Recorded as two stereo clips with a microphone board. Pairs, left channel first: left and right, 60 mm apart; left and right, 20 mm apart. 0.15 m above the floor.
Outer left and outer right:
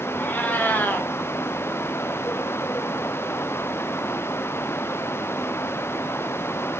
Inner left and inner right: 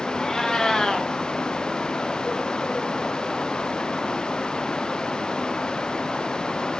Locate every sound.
0.2 s a cat meowing: 30° left (ahead or behind), 2.5 m